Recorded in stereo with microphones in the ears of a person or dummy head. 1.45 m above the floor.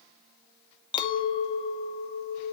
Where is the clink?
30° left (ahead or behind), 1.0 m.